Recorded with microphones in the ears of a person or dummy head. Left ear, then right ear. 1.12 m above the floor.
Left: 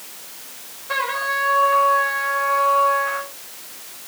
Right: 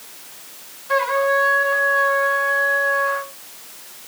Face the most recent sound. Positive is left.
turn(degrees=-10)  # may be behind; listen again after turning